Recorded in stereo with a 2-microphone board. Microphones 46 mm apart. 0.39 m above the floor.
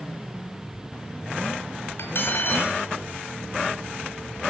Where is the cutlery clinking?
60° left (ahead or behind), 1.3 m.